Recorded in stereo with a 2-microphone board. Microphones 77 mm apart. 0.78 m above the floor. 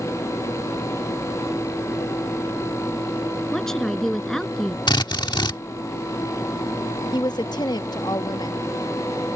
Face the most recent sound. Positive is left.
turn(degrees=60)  # may be behind; listen again after turning